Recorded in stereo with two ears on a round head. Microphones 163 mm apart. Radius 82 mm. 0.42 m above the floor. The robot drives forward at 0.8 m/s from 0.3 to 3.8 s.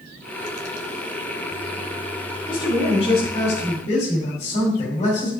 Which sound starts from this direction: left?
A man speaking, at 2.5 s.